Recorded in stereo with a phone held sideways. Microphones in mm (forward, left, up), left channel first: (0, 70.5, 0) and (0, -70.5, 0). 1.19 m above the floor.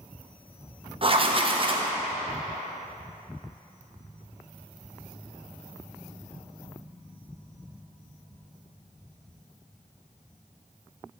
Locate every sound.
1.0 s writing: 40° right (ahead or behind), 0.7 m